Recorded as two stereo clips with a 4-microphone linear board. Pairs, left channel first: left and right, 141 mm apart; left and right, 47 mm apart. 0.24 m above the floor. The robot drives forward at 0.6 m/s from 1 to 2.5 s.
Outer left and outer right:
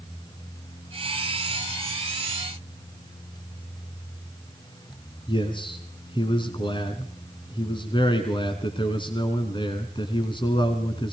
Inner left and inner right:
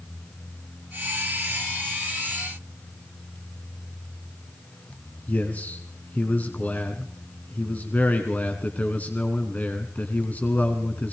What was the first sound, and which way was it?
A man speaking, 35° left (ahead or behind).